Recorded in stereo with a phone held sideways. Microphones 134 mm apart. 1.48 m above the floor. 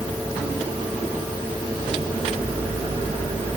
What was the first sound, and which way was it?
Only background noise.